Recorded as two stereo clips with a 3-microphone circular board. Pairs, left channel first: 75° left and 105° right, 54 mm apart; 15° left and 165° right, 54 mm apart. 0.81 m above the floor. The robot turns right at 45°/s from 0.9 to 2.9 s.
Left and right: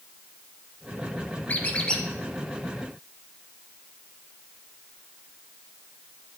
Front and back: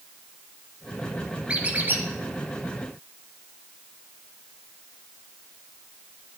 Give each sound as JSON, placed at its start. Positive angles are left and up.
{"t": 1.5, "sound": "a squeak", "azimuth_deg": 130, "distance_m": 1.1}